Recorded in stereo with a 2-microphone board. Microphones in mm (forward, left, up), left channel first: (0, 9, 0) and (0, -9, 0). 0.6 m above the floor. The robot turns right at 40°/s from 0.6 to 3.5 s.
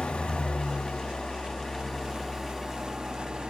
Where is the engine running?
105° left, 1.3 m; by 3.5 s 140° right, 1.3 m.